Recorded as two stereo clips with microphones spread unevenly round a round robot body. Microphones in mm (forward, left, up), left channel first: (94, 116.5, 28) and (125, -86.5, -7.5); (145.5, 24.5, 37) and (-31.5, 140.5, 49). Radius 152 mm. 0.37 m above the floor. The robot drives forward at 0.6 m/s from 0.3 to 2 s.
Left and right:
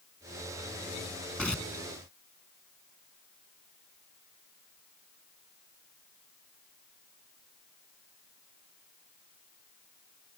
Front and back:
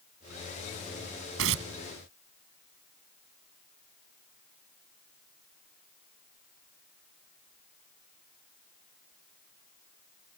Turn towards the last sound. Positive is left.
turn(degrees=-175)